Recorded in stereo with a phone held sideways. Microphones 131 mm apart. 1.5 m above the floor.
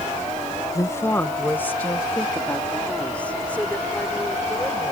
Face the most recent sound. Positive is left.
turn(degrees=10)  # may be behind; listen again after turning